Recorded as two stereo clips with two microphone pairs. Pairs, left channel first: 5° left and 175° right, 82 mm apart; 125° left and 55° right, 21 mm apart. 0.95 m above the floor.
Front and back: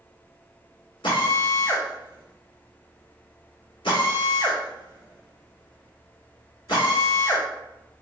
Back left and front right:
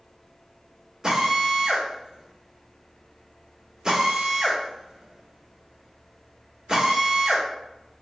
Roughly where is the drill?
Ahead.